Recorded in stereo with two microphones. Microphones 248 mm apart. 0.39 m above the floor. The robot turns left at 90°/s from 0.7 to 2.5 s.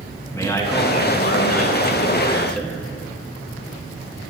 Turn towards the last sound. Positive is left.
turn(degrees=5)